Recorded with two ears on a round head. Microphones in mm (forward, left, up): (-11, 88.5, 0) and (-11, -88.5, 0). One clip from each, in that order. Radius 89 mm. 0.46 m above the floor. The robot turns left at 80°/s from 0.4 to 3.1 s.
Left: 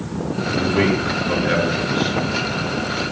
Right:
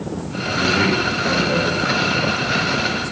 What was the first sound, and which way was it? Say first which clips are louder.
A man speaking: right 2 dB; 15° right (ahead or behind).